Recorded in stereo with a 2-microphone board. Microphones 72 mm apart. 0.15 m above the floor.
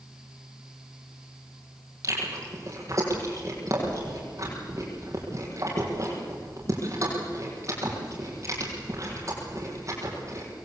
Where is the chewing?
50° right (ahead or behind), 6 m.